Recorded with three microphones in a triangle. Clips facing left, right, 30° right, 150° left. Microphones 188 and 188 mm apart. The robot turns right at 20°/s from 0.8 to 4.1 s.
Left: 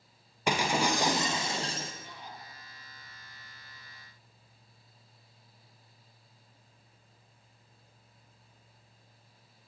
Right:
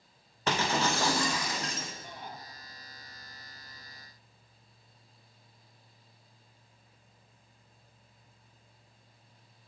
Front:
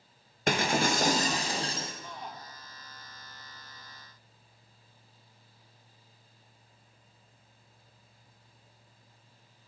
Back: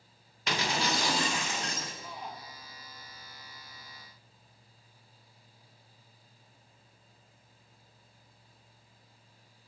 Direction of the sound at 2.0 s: 125° right.